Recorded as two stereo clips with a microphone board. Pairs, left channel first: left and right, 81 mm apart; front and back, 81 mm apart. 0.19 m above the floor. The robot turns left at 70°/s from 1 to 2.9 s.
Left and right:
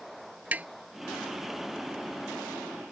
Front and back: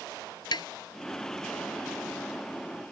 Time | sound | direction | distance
0.5 | tapping | 20° right | ?